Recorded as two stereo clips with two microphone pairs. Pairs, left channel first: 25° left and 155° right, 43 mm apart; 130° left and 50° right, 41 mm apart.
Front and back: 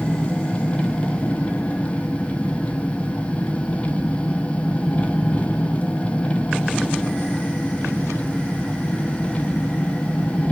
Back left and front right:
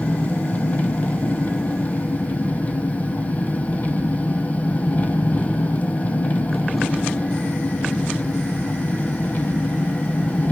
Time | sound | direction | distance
0.0 | an engine running | 80° left | 1.1 m